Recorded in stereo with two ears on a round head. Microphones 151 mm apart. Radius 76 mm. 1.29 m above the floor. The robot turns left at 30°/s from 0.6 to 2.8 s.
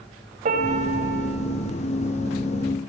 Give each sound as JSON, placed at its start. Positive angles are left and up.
{"t": 0.5, "sound": "a piano", "side_deg": -45, "distance_m": 3.0}